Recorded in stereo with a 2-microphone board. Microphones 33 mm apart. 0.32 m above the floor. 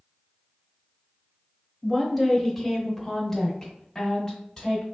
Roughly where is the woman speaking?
Centre.